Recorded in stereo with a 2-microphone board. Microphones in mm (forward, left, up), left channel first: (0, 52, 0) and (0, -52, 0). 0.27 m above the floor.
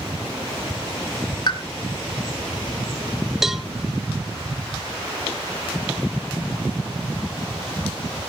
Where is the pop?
45° left (ahead or behind), 3 m.